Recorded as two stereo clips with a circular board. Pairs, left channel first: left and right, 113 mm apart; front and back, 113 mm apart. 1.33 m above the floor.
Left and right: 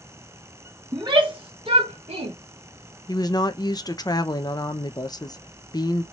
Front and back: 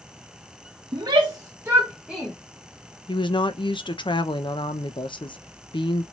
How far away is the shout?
About 1.5 m.